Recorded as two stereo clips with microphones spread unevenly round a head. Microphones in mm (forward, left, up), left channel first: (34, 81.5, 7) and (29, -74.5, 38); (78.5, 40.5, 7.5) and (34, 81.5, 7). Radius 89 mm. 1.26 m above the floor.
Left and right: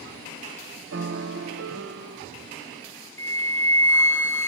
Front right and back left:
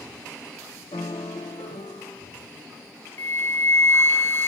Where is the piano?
85° right, 0.7 m.